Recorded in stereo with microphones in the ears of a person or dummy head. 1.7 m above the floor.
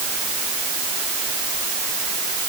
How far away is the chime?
I don't hear a chime.